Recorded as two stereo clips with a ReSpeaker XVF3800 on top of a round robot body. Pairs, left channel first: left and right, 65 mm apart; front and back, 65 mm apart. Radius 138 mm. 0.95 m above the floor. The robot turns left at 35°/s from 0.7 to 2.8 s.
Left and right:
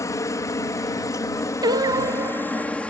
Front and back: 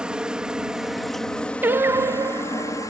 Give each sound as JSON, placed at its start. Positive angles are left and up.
{"t": 0.0, "sound": "a helicopter", "azimuth_deg": 105}
{"t": 1.6, "sound": "singing", "azimuth_deg": -120}